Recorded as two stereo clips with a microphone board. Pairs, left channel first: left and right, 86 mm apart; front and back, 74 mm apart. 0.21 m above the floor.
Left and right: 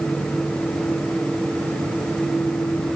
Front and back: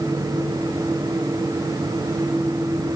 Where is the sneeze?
No sneeze in this recording.